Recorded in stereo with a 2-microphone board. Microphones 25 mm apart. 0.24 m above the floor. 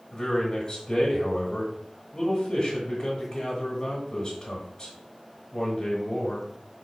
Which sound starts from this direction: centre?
A man speaking, at 0.1 s.